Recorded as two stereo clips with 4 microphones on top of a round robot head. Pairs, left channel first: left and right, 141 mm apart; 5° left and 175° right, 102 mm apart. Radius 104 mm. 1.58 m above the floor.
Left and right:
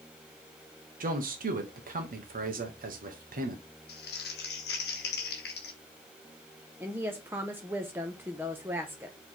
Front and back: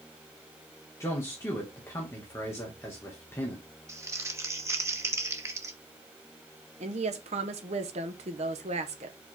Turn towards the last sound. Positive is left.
turn(degrees=-170)